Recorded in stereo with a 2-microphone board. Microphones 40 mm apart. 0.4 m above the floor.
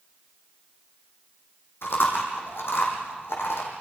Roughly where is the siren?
No siren in this recording.